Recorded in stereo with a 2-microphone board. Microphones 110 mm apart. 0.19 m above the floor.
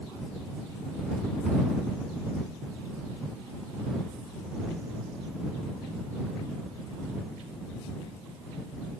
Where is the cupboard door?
I don't hear a cupboard door.